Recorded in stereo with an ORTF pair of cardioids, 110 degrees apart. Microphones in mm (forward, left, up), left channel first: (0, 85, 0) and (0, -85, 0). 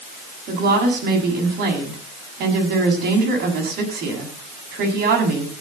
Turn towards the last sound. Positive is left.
turn(degrees=-65)